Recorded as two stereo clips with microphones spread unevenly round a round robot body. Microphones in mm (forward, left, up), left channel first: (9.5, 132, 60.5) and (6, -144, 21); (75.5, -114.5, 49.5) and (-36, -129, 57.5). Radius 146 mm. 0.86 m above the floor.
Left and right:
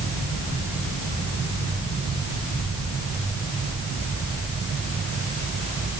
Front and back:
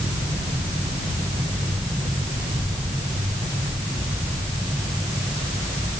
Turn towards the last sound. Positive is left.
No sound to turn to.